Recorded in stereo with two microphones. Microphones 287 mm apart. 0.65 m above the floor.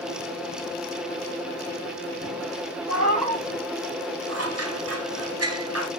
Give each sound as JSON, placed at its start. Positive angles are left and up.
{"t": 2.9, "sound": "a cat meowing", "side_deg": -65, "distance_m": 2.0}
{"t": 4.3, "sound": "scissors", "side_deg": -55, "distance_m": 0.8}